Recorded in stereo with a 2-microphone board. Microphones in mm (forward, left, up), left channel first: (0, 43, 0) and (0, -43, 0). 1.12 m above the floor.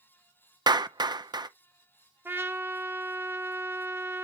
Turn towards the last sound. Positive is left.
turn(degrees=-25)  # may be behind; listen again after turning